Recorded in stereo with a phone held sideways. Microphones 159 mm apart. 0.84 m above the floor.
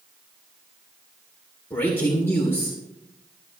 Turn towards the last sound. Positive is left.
turn(degrees=10)  # may be behind; listen again after turning